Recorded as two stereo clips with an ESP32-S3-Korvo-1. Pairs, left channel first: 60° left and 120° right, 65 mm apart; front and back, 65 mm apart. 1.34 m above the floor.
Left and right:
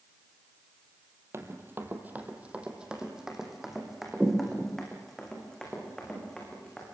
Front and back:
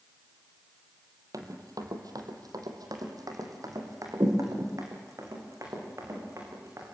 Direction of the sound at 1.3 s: 165° right.